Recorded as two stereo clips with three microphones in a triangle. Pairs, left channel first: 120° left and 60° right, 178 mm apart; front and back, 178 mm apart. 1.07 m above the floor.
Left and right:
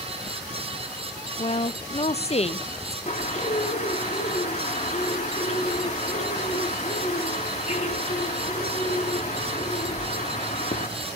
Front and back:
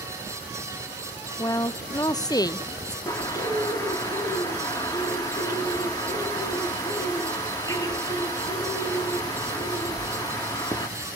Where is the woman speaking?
70° left, 0.7 m.